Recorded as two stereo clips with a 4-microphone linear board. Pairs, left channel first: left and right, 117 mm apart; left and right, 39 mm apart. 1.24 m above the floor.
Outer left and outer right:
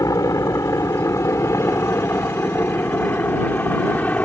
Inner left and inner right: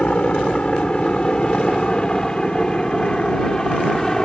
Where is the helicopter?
30° left (ahead or behind); by 4.2 s 15° left (ahead or behind).